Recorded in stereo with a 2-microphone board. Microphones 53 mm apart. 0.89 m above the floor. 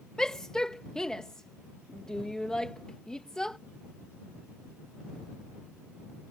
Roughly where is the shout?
Centre.